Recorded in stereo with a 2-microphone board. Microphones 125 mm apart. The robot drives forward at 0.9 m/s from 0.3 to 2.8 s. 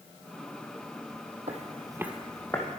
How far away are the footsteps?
About 0.9 m.